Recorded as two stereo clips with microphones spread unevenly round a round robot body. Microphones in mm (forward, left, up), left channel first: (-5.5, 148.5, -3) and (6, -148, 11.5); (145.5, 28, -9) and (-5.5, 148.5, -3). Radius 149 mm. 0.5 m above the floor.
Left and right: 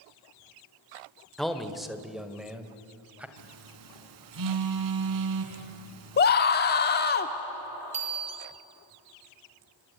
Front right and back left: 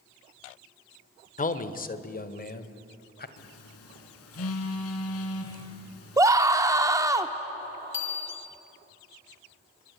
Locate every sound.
1.4 s a man speaking: 5° left, 1.5 m; by 3.3 s straight ahead, 2.5 m
3.4 s a phone buzzing: 60° right, 2.5 m
6.2 s a scream: 75° left, 0.9 m
7.9 s a bicycle bell: 15° right, 4.5 m